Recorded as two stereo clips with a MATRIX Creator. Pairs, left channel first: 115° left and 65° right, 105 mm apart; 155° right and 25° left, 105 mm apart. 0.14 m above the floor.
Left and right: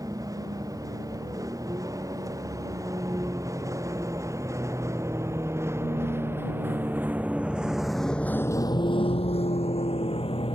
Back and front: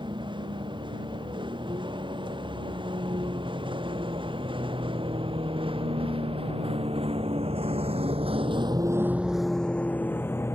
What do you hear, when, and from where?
0.0 s a vehicle: 15° right; by 10.6 s 140° left